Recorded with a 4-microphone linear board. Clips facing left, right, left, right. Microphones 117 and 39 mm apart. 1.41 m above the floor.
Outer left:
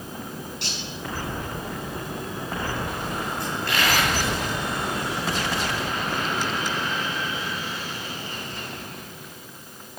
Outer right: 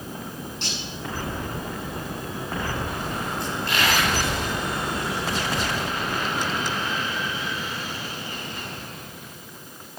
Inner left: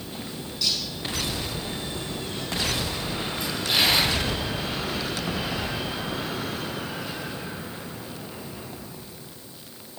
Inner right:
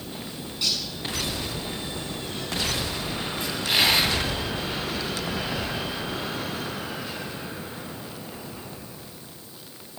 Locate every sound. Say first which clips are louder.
0.6 s cutlery clinking: outer right 1 dB, even; 25° right (ahead or behind), 8.5 m
3.4 s a dropped coin: even, inner right 1 dB; 25° right (ahead or behind), 9.5 m